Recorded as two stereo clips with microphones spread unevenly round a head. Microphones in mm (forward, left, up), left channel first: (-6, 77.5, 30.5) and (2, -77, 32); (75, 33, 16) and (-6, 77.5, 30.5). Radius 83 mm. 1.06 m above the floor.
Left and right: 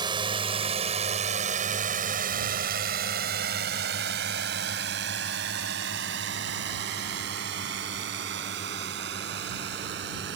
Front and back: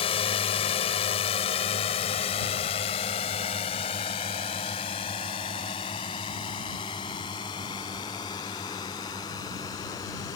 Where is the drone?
25° right; by 10.4 s 95° right.